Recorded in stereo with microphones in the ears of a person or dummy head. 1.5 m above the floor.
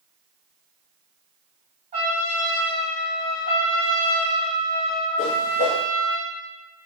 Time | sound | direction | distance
1.9 | a trumpet | 40° right (ahead or behind) | 1.4 m
3.5 | a trumpet | 45° left (ahead or behind) | 0.8 m
5.2 | a whoosh | 40° left (ahead or behind) | 0.5 m